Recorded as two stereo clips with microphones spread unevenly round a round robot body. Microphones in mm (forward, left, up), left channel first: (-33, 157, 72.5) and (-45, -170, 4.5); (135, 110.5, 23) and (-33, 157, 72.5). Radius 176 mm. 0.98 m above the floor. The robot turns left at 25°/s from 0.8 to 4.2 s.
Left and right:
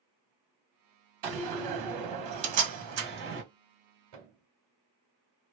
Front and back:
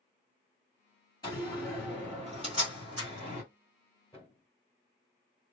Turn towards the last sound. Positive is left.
turn(degrees=-100)